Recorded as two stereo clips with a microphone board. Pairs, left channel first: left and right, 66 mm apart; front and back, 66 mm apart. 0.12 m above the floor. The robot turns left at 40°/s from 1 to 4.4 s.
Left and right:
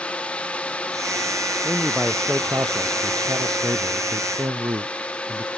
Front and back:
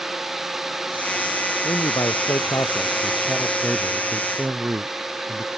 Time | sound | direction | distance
1.6 | a man speaking | straight ahead | ?